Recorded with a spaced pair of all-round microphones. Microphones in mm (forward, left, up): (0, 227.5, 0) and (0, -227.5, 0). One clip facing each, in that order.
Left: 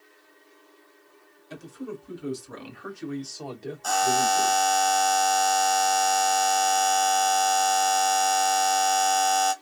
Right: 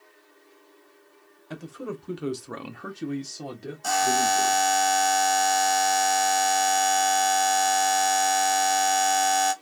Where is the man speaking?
70° right (ahead or behind), 0.9 m; by 4.6 s 5° right (ahead or behind), 1.1 m.